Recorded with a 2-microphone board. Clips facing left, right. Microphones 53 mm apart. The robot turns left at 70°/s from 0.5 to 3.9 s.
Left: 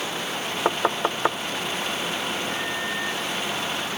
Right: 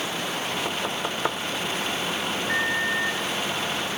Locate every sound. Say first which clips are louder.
0.7 s knocking: left 5 dB; 50° left (ahead or behind), 0.6 m; by 1.4 s 10° left (ahead or behind), 0.6 m
2.5 s a microwave: right 4 dB; 85° right, 3.5 m; by 3.3 s 145° right, 3.5 m